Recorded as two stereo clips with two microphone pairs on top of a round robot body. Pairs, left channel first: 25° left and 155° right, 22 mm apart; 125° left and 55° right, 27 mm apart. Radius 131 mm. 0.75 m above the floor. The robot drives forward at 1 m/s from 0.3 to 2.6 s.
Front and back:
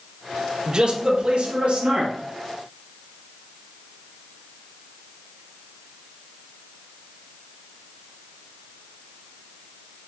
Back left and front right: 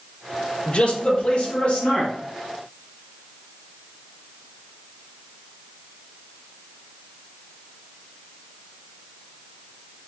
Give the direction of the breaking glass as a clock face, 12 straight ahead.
I don't hear breaking glass.